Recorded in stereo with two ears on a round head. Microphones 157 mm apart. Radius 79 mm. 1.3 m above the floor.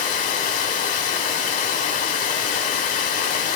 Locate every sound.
0.0 s running water: 45° left (ahead or behind), 1.1 m